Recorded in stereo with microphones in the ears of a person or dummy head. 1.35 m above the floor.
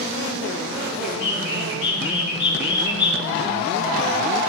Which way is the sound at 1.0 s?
70° left (ahead or behind).